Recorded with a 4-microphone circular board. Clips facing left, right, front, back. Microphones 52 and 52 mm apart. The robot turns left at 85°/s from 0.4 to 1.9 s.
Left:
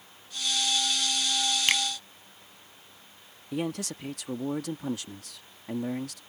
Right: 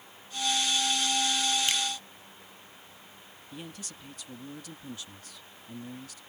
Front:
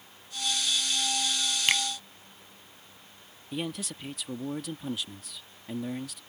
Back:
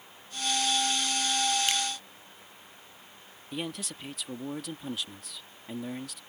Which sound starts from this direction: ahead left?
A finger snap, at 1.7 s.